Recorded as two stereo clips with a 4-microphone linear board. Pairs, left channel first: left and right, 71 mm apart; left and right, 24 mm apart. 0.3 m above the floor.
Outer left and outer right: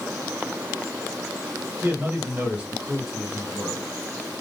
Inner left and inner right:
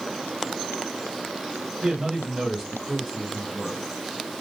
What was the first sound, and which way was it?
A man speaking, 35° right (ahead or behind).